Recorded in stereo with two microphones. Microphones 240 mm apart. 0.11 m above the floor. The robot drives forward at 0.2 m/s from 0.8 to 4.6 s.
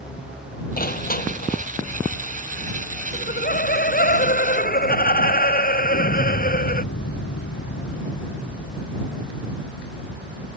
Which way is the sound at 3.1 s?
40° left (ahead or behind).